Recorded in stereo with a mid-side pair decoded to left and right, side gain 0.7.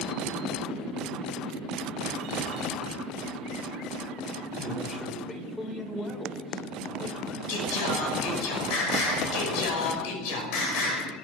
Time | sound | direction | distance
4.6 | a man speaking | 15° left | 5 m
7.5 | singing | 70° left | 5.5 m